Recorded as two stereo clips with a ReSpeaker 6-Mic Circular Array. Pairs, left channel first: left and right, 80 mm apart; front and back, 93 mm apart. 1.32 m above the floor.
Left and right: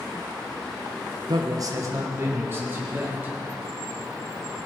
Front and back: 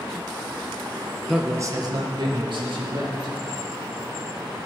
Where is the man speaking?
90° right, 0.6 m; by 3.3 s 155° right, 3 m.